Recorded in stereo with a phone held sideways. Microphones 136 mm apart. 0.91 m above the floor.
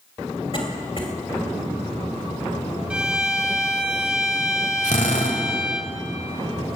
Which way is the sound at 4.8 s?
75° left (ahead or behind).